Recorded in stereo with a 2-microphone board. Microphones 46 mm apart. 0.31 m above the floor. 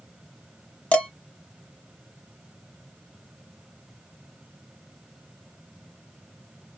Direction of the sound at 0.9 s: 30° left (ahead or behind).